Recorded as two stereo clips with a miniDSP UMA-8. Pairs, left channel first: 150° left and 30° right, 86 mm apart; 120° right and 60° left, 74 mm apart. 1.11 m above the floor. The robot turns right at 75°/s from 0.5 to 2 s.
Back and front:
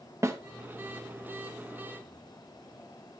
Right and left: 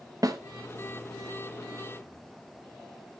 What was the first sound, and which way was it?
A snare drum, 25° left.